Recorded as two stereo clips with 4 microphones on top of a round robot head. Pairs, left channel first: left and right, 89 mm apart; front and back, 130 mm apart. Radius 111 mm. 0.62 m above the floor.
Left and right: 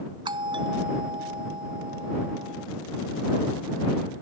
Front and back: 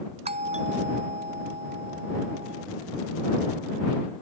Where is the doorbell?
135° right.